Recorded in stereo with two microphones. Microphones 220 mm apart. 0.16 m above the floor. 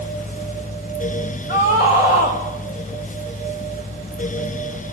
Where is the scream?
50° left (ahead or behind), 8 m.